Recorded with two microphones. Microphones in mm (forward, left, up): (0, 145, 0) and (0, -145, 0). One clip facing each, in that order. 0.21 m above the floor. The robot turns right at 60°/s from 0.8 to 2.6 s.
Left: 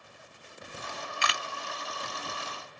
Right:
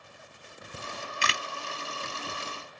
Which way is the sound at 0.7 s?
45° right (ahead or behind).